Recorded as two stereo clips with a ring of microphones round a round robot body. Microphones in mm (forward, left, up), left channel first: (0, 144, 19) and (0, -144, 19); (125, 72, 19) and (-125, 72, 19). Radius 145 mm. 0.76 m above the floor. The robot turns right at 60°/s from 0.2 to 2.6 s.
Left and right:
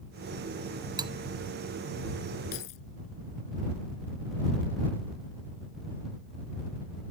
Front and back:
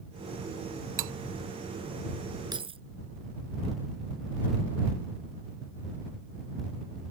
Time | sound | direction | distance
1.0 | cutlery clinking | 170° right | ?
2.5 | keys jangling | 105° left | ?